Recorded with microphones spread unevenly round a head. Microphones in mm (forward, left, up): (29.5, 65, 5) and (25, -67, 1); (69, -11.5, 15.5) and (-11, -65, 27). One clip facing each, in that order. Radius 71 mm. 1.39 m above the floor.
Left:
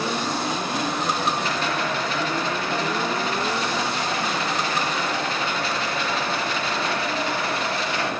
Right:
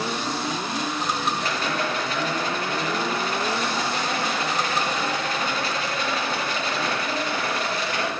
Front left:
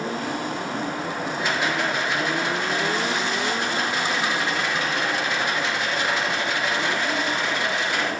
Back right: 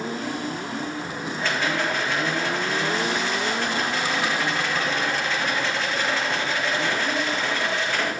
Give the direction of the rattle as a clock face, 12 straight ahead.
1 o'clock.